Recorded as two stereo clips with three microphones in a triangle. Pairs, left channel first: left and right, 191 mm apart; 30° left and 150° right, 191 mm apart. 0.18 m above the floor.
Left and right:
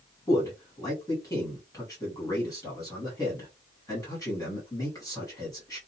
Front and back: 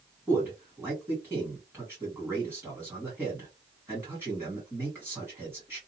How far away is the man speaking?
About 1.5 m.